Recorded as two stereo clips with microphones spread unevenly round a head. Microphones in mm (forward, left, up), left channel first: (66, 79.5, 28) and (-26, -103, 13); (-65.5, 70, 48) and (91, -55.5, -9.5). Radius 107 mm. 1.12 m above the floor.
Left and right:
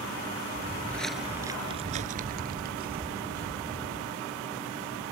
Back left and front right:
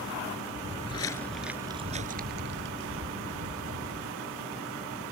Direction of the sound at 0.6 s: 130° left.